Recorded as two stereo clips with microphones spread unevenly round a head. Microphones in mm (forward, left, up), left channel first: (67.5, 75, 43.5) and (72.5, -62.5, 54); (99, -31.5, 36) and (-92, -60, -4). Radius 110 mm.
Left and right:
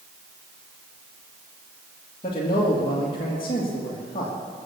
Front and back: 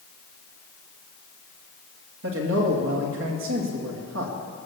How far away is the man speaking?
About 2 m.